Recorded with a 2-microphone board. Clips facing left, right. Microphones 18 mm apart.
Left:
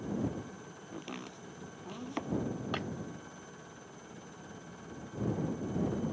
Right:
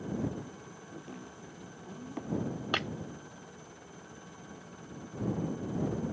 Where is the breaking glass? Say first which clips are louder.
Right 8 dB; 35° right (ahead or behind).